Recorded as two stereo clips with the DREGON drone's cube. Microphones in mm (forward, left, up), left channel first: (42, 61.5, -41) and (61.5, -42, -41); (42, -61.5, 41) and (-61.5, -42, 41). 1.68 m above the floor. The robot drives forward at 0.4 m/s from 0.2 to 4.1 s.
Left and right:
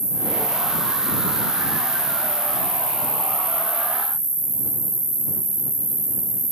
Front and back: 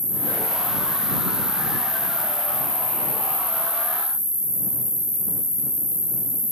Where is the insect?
50° right, 8 m; by 6.5 s 60° right, 7.5 m.